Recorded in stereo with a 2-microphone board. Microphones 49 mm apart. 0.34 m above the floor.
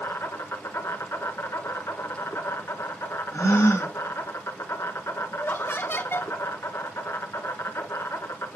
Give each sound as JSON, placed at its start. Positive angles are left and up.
{"t": 0.0, "sound": "an insect", "side_deg": 70, "distance_m": 1.3}
{"t": 3.3, "sound": "a gasp", "side_deg": 80, "distance_m": 2.0}
{"t": 5.3, "sound": "laughter", "side_deg": 55, "distance_m": 2.5}